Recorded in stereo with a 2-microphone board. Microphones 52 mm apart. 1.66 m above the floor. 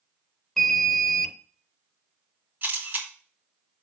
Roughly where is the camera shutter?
Right.